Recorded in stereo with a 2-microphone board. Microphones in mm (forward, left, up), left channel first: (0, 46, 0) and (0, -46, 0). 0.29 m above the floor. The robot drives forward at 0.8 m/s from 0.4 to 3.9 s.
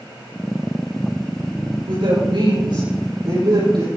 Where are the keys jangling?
I don't hear keys jangling.